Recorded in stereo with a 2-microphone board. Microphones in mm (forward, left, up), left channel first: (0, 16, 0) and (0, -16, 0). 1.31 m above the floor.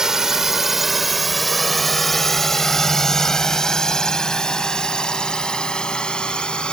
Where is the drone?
15° right (ahead or behind); by 6.7 s 30° left (ahead or behind).